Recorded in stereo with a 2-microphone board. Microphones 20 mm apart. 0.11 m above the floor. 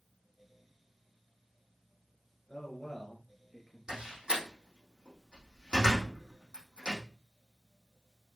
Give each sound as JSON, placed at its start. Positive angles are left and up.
{"t": 2.5, "sound": "a man speaking", "side_deg": 0, "distance_m": 1.9}
{"t": 3.9, "sound": "a door slam", "side_deg": -65, "distance_m": 4.5}